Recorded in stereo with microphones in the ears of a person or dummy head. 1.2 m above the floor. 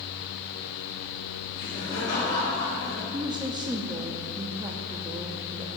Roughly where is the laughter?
Left.